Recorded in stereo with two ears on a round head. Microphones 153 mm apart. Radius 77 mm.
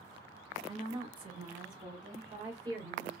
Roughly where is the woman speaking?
Right.